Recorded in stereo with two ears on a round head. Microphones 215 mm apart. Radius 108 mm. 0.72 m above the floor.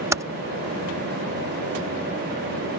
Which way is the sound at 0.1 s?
10° right (ahead or behind).